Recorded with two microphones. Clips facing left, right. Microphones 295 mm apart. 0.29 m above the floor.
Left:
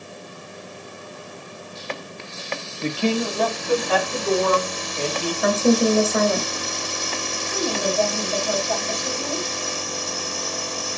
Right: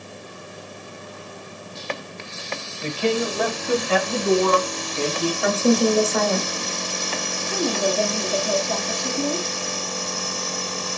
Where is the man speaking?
20° left (ahead or behind), 1.2 m; by 5.3 s 55° right (ahead or behind), 2.5 m.